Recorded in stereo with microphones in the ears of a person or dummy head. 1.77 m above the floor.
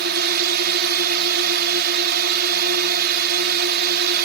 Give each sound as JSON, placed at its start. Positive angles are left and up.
{"t": 0.0, "sound": "a drone", "side_deg": -55}